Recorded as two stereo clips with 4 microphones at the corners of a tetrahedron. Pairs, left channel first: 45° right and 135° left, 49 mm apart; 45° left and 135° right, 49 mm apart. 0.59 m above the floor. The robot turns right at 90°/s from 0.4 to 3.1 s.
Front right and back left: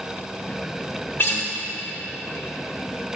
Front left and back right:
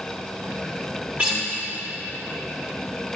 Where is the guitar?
80° right, 1.6 m; by 1.4 s 60° right, 1.6 m.